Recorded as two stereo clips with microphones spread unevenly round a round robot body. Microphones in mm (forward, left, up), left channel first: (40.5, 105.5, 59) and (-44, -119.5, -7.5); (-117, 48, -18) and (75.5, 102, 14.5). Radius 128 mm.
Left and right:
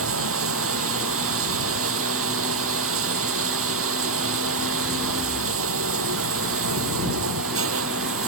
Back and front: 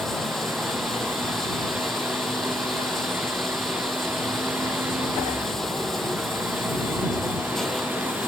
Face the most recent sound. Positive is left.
turn(degrees=-75)